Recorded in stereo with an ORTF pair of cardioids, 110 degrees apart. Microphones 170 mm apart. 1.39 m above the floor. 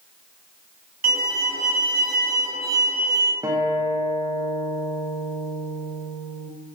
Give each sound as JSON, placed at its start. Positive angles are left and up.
{"t": 1.0, "sound": "a violin", "azimuth_deg": -60, "distance_m": 0.9}
{"t": 3.4, "sound": "a guitar", "azimuth_deg": -20, "distance_m": 0.6}